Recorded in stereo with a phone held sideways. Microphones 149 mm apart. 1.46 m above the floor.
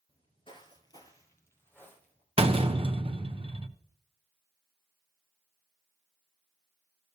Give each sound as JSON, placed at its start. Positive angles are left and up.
{"t": 0.1, "sound": "footsteps", "side_deg": 40, "distance_m": 1.7}
{"t": 2.4, "sound": "a door slam", "side_deg": -40, "distance_m": 0.7}